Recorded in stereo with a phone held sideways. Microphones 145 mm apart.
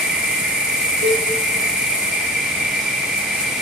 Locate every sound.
0.0 s an insect: 5° right (ahead or behind), 2 m
1.0 s a cowbell: 80° right, 6.5 m